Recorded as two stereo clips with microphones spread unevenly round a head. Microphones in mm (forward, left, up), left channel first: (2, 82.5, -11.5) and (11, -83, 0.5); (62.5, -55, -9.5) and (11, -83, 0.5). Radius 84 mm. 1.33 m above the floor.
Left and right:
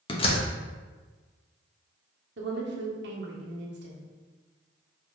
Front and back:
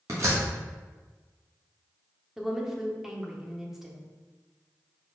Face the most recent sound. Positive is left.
turn(degrees=-65)